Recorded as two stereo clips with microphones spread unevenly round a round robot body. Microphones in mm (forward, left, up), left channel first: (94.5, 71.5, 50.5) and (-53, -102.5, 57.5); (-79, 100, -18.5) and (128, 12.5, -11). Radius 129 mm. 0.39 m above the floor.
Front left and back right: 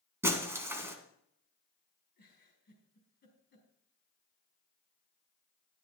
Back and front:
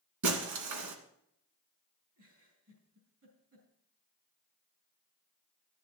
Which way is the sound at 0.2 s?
50° right.